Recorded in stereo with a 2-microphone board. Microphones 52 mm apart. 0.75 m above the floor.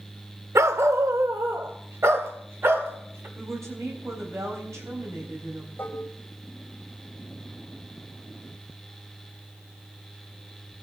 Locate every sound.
0.6 s a dog barking: 75° right (ahead or behind), 0.8 m; by 3.3 s 55° right (ahead or behind), 2.5 m
3.4 s a woman speaking: 80° right, 4 m
5.8 s dishes clattering: 40° left (ahead or behind), 2.5 m